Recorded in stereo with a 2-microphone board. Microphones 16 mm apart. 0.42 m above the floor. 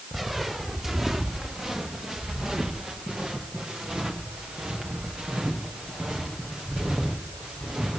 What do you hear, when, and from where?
0.1 s footsteps: 20° right (ahead or behind), 3 m; by 8.0 s 85° right, 7 m